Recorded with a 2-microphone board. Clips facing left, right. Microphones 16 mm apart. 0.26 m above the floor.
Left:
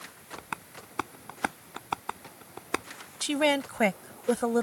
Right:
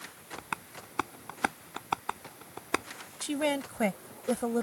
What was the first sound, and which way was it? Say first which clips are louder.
Tapping: right 1 dB; 5° right (ahead or behind).